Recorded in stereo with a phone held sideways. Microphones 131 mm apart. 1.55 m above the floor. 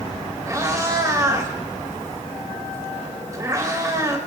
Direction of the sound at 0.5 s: 25° right (ahead or behind).